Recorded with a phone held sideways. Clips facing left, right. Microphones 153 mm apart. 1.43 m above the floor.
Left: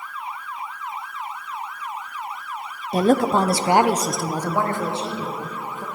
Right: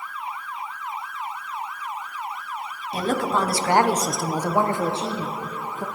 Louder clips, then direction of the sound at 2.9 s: Left 6 dB; 50° left (ahead or behind).